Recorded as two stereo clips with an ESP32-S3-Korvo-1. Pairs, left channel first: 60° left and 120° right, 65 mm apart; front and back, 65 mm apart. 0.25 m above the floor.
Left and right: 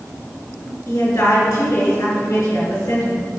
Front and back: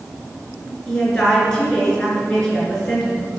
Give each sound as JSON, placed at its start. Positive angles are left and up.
{"t": 0.9, "sound": "a woman speaking", "azimuth_deg": 75, "distance_m": 3.0}